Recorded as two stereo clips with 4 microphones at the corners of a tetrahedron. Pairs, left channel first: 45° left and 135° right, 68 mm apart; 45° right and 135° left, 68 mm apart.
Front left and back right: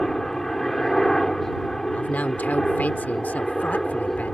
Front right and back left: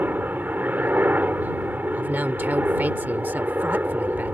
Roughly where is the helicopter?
Behind left.